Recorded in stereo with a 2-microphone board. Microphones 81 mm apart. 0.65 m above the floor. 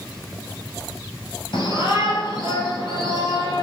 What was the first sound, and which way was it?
A shout, 80° left.